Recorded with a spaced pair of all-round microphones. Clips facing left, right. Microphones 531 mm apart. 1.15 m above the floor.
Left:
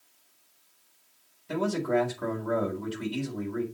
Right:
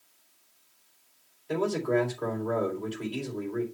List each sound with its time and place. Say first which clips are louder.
1.5 s a man speaking: right 1 dB; 30° left (ahead or behind), 4 m